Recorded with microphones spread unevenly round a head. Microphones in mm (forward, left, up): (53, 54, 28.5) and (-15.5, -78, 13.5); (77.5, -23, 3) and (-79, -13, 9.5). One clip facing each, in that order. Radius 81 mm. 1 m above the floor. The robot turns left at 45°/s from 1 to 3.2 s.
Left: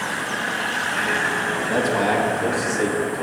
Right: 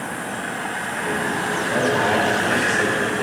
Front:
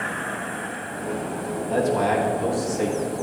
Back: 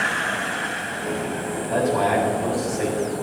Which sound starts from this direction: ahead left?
A man speaking, at 1.7 s.